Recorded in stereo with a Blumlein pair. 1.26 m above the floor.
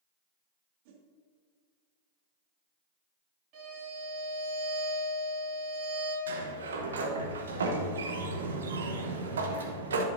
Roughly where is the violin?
Ahead right.